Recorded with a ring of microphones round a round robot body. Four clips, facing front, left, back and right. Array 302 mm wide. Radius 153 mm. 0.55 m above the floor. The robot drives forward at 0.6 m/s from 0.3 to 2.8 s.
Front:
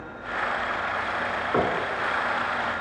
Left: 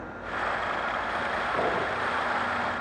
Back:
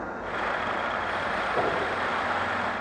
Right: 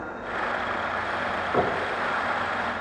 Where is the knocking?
20° right, 4 m; by 1.8 s 25° right, 4 m.